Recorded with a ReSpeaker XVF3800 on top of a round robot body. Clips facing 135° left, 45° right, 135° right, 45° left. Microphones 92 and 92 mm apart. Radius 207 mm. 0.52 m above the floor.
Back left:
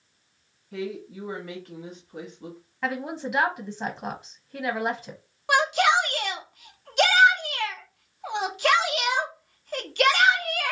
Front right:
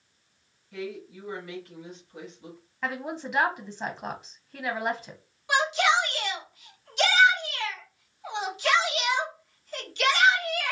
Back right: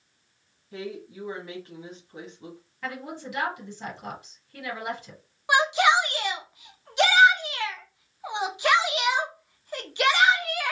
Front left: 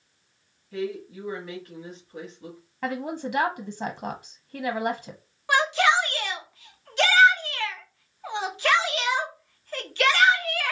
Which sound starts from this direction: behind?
A woman speaking, at 0.7 s.